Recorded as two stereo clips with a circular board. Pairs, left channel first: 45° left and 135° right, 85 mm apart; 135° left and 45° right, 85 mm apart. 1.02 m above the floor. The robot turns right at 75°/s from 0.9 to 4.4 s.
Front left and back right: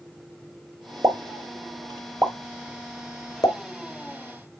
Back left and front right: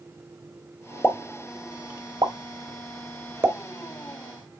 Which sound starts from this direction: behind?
A pop, at 1.0 s.